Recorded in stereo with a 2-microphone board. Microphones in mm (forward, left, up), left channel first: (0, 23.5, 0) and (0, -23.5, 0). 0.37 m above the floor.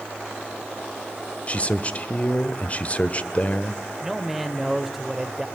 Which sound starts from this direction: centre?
A man speaking, at 4.0 s.